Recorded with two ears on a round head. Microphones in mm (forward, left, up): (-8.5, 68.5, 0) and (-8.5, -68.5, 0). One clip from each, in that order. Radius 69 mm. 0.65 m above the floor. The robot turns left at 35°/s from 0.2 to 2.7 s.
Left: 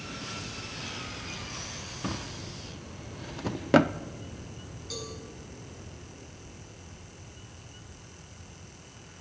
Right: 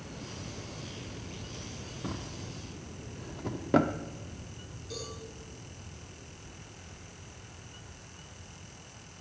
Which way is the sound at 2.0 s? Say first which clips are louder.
Left 3 dB; 50° left (ahead or behind).